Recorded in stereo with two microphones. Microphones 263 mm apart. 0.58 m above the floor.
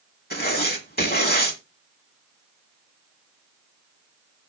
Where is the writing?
35° left (ahead or behind), 1.7 m.